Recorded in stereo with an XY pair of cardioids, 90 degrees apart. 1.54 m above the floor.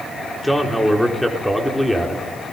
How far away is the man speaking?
About 3.5 m.